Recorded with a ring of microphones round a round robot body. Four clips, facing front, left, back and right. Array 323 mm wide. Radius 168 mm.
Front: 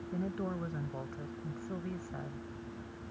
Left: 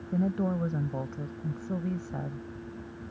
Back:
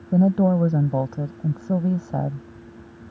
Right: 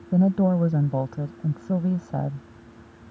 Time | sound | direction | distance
0.1 | a woman speaking | 155° right | ?